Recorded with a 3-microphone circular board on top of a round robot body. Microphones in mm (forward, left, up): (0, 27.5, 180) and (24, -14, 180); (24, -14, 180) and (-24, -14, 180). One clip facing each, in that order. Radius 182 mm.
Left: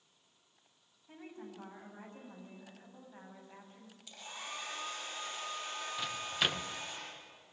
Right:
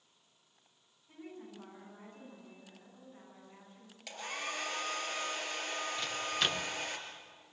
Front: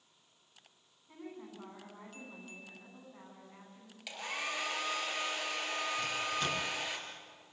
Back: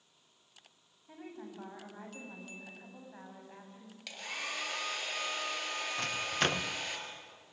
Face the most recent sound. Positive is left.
turn(degrees=-160)